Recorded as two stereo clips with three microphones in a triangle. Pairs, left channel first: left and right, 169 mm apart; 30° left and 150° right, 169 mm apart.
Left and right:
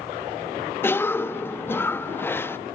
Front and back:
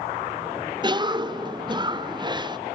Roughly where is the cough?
Behind.